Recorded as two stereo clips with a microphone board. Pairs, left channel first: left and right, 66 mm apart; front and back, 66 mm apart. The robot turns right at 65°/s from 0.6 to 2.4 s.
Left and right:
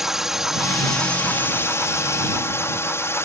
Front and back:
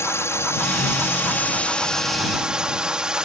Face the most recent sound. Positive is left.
turn(degrees=110)